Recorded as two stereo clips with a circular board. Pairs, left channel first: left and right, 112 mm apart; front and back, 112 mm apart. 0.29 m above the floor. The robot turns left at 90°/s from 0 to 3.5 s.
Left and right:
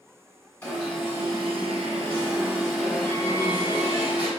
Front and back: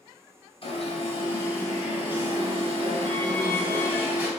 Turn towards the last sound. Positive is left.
turn(degrees=115)